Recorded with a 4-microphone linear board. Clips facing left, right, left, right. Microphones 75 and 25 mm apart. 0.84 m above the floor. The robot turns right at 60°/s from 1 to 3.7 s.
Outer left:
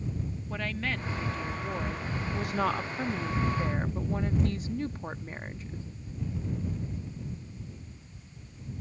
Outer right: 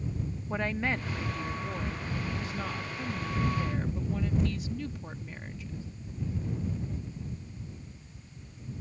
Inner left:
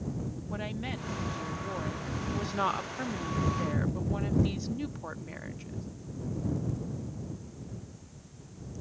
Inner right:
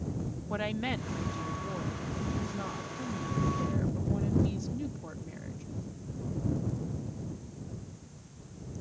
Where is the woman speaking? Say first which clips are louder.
Outer right 3 dB, inner right 5 dB; 25° right; by 5.9 s 140° left.